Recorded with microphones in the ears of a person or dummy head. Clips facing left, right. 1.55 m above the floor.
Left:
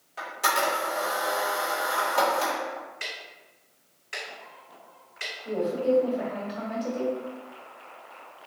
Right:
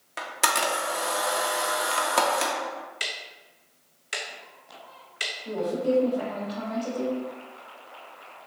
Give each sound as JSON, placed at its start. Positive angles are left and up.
{"t": 0.2, "sound": "a camera shutter", "side_deg": -75, "distance_m": 0.8}
{"t": 3.0, "sound": "ticking", "side_deg": -60, "distance_m": 0.6}
{"t": 5.5, "sound": "a woman speaking", "side_deg": 0, "distance_m": 1.5}